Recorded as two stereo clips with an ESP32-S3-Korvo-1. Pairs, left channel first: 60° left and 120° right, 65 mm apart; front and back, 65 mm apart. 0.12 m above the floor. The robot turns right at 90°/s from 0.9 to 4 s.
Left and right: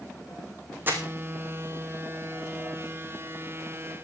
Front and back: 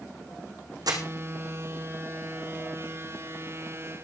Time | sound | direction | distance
0.9 | crumpling | straight behind | 3 m